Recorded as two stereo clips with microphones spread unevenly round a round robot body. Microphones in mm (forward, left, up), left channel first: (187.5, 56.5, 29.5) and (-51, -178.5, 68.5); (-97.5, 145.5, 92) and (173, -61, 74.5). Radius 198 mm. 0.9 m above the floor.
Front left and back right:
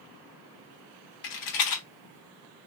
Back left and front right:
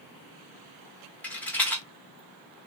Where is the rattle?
60° left, 1.2 m.